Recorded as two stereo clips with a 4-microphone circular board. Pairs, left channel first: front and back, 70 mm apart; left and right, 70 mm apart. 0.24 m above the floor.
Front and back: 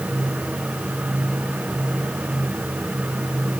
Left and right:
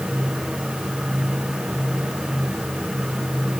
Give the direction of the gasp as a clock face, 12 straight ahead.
I don't hear a gasp.